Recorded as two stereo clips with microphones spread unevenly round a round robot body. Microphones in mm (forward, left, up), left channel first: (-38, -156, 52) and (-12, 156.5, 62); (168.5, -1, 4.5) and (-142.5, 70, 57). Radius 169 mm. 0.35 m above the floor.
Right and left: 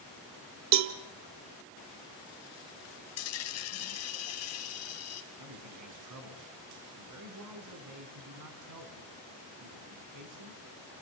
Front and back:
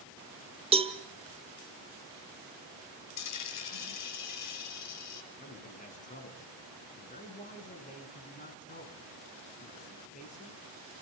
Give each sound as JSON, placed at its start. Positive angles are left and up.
{"t": 0.7, "sound": "a cowbell", "azimuth_deg": 90, "distance_m": 1.1}
{"t": 3.2, "sound": "a dropped coin", "azimuth_deg": -50, "distance_m": 1.6}
{"t": 5.4, "sound": "a man speaking", "azimuth_deg": 50, "distance_m": 3.5}